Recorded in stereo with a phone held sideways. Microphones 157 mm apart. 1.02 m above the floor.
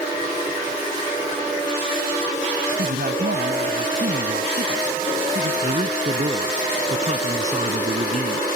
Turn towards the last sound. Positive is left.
turn(degrees=-50)  # may be behind; listen again after turning